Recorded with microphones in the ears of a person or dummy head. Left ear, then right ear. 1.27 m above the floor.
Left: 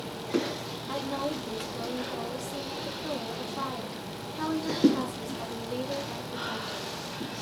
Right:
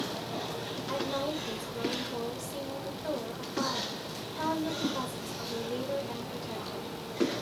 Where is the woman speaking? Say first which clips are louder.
Even; centre (ahead or behind), 2.5 m.